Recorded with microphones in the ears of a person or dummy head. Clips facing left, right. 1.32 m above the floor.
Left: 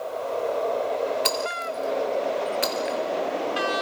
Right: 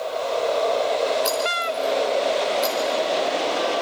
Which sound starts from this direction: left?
Breaking glass, at 1.2 s.